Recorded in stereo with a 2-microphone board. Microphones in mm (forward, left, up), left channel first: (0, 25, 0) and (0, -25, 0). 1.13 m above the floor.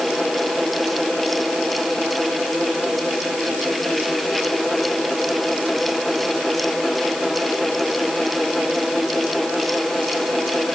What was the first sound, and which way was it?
Only background noise.